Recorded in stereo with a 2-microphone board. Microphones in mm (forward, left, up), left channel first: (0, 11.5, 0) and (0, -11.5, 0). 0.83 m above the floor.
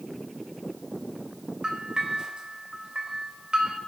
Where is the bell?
35° right (ahead or behind), 2.5 m.